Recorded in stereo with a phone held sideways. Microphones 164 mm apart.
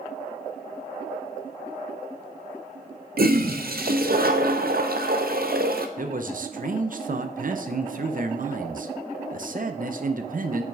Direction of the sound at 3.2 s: 70° right (ahead or behind).